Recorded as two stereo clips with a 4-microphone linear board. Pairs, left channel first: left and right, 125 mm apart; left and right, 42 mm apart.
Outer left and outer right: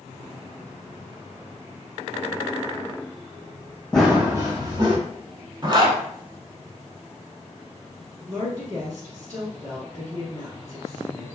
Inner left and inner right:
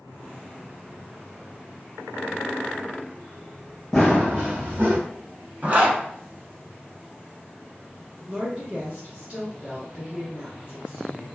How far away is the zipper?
About 0.7 m.